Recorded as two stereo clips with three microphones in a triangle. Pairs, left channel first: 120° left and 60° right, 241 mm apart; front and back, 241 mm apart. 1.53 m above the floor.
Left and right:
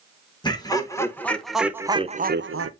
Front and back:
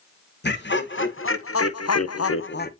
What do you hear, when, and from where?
0.4 s laughter: 50° left, 1.6 m; by 2.7 s 50° right, 0.6 m